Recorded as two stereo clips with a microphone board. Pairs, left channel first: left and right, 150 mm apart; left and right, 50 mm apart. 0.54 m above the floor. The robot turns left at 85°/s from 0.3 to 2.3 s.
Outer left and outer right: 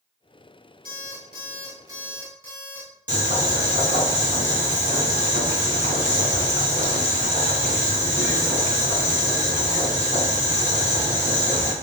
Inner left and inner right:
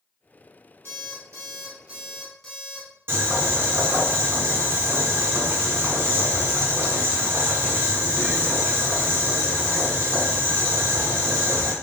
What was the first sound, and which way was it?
An alarm clock, 70° right.